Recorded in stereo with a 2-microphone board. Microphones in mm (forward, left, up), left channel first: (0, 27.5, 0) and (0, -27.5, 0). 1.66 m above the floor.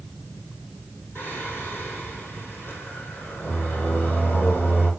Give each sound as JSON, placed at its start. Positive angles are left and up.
{"t": 1.1, "sound": "singing", "side_deg": 40, "distance_m": 5.5}